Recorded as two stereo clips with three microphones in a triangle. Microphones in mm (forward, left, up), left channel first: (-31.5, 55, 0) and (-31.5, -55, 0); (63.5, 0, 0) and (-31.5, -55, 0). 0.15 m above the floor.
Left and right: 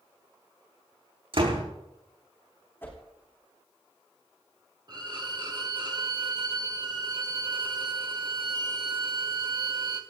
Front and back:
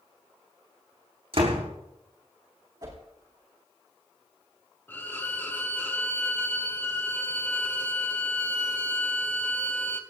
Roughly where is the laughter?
No laughter in this recording.